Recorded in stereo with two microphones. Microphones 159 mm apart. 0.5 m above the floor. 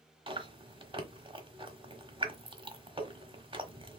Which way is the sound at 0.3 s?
35° right (ahead or behind).